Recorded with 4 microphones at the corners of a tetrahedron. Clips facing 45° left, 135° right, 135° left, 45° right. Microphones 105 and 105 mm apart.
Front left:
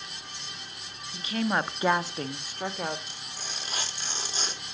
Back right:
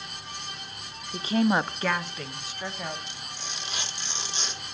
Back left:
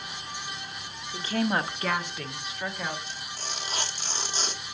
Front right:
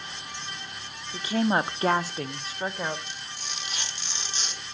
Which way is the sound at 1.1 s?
125° right.